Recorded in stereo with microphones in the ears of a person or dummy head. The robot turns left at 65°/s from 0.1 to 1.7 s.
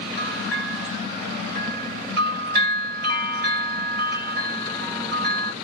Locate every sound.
0.2 s a bell: 40° left, 1.7 m; by 5.5 s 60° right, 1.7 m